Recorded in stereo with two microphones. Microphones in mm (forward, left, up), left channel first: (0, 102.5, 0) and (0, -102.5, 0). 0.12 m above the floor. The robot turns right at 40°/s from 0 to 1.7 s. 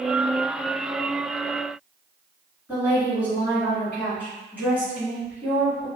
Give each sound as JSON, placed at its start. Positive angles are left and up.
{"t": 2.7, "sound": "a woman speaking", "side_deg": -5, "distance_m": 1.7}